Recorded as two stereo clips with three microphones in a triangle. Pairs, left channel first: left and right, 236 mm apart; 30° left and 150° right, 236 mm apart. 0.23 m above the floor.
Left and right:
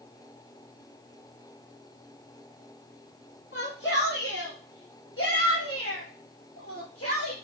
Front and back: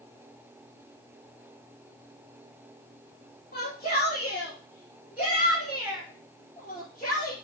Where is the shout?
70° left, 2 m; by 7.3 s 85° left, 4.5 m.